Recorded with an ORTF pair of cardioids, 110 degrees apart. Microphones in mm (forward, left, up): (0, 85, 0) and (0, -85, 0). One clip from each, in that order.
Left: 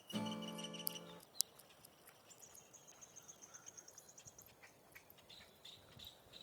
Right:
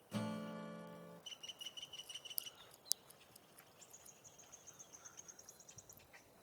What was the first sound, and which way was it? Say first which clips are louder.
A guitar: even; 5° right.